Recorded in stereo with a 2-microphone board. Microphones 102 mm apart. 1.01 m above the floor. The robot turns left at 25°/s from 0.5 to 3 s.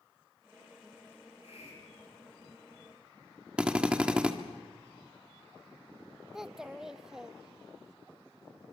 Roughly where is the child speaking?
Centre.